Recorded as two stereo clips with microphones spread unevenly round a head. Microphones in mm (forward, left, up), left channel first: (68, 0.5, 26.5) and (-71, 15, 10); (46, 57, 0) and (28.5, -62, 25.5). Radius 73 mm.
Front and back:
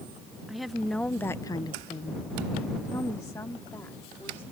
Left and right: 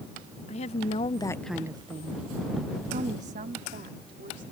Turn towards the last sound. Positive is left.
turn(degrees=-80)